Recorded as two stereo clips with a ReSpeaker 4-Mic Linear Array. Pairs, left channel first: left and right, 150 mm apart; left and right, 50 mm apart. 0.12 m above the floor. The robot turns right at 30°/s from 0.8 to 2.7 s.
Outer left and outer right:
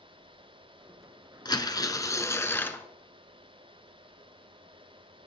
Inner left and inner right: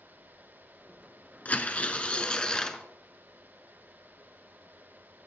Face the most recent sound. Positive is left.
turn(degrees=155)